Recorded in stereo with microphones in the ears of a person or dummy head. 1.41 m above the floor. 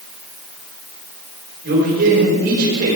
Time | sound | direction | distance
1.6 | a man speaking | 65° right (ahead or behind) | 4 m